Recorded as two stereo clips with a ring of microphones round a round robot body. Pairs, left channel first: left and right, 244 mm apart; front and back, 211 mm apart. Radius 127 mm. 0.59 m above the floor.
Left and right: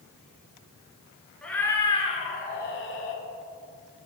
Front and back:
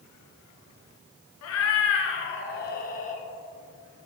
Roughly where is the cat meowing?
Ahead.